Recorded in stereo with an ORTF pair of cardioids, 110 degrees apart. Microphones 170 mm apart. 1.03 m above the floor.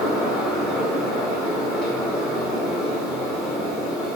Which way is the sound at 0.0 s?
5° right.